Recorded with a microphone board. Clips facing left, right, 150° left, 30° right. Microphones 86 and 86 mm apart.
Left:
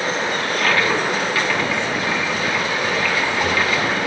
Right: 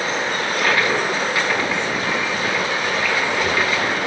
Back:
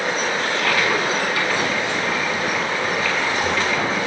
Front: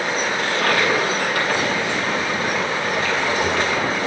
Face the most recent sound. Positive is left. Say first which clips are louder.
# even, front 3 dB
turn(degrees=-15)